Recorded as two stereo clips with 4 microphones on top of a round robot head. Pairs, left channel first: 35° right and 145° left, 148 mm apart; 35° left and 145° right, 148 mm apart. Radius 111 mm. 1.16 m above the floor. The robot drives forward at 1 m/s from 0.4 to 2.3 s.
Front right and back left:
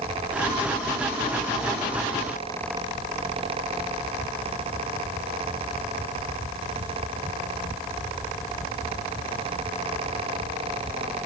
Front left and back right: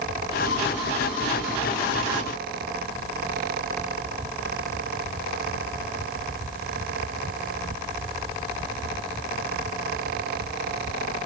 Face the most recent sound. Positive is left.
No sound to turn to.